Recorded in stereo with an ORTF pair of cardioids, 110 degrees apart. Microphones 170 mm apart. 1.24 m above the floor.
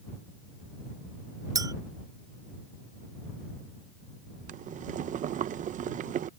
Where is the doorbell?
I don't hear a doorbell.